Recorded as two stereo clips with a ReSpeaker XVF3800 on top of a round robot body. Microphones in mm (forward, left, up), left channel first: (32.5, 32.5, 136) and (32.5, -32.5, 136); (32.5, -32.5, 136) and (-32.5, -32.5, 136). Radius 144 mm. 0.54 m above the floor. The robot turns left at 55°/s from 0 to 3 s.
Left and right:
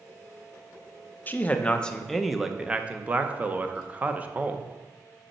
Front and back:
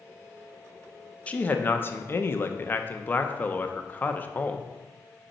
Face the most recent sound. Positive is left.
turn(degrees=-40)